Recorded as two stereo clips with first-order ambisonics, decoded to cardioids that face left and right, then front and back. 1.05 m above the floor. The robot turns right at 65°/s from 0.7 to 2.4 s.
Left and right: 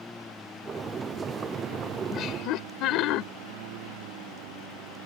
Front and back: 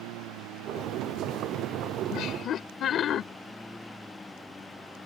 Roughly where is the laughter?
Ahead left.